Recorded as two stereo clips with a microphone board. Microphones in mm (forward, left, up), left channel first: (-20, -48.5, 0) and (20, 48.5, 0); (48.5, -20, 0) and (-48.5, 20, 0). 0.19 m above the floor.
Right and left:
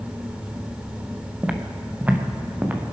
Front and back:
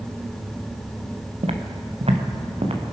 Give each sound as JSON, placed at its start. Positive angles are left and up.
{"t": 1.4, "sound": "footsteps", "azimuth_deg": 145, "distance_m": 1.9}